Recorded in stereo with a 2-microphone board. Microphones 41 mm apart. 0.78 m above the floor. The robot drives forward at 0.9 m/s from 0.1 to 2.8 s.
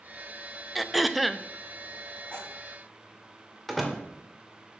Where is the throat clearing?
Centre (ahead or behind), 0.6 m.